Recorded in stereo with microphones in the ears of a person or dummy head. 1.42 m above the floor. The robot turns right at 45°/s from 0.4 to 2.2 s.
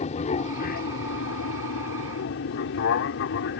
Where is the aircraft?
40° left; by 3.6 s 120° left.